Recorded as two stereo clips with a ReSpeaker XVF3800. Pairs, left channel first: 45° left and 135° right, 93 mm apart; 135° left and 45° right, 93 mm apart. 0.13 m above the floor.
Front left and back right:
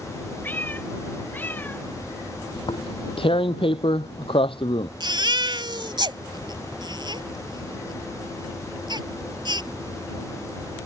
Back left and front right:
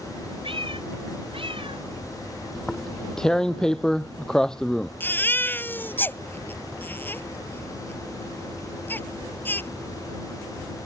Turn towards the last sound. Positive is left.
turn(degrees=-160)